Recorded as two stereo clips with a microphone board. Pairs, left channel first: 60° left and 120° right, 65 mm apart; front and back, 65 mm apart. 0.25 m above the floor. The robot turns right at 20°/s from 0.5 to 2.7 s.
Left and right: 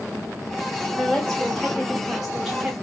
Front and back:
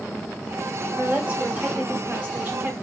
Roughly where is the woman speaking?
Behind left.